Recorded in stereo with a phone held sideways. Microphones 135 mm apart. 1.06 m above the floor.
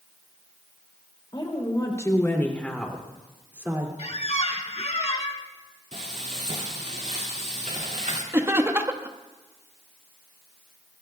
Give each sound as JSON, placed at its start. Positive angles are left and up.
{"t": 1.3, "sound": "a woman speaking", "side_deg": 35, "distance_m": 3.5}
{"t": 4.0, "sound": "a squeak", "side_deg": 50, "distance_m": 1.4}
{"t": 5.9, "sound": "frying", "side_deg": -60, "distance_m": 2.0}
{"t": 8.3, "sound": "laughter", "side_deg": -20, "distance_m": 1.3}